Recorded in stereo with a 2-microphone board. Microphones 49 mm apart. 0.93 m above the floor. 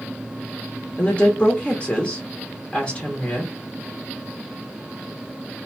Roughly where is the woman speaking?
Left.